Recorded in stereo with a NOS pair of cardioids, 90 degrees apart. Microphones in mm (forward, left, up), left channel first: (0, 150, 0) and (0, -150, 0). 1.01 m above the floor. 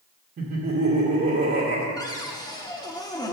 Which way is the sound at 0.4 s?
45° right.